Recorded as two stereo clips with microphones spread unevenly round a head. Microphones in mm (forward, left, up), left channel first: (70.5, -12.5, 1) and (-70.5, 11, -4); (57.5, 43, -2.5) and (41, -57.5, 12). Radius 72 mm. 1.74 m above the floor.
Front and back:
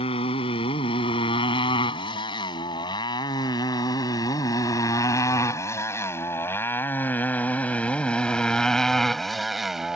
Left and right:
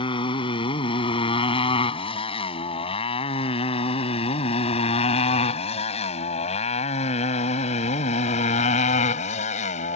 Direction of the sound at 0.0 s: 45° left.